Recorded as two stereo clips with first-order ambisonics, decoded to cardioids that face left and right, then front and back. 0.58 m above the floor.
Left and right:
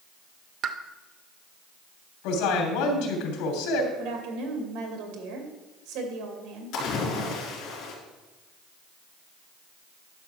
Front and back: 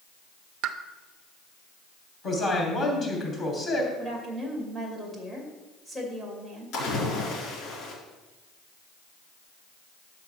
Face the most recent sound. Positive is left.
turn(degrees=40)